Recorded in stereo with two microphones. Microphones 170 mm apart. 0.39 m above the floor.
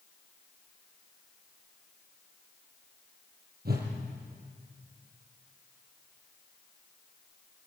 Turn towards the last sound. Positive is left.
turn(degrees=-65)  # may be behind; listen again after turning